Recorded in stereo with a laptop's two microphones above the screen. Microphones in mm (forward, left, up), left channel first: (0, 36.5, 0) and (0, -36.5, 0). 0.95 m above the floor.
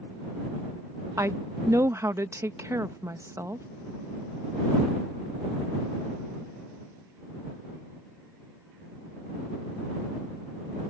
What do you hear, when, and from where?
1.2 s a woman speaking: 40° right (ahead or behind)